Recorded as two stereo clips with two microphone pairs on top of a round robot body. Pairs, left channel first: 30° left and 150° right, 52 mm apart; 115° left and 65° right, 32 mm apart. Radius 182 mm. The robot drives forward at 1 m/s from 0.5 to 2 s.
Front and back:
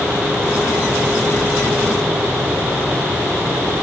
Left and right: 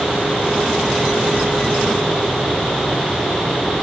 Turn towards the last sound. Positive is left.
No sound to turn to.